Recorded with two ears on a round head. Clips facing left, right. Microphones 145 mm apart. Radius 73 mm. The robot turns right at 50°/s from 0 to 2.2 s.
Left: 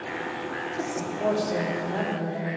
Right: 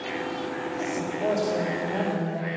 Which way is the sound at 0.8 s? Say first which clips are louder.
Left 1 dB; 105° left.